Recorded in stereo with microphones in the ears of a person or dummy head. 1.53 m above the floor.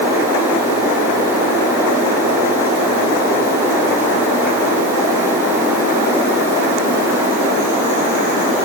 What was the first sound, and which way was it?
Only background noise.